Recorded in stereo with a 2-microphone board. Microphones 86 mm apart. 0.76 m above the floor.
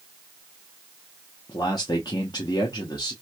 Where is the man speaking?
55° left (ahead or behind), 0.8 m.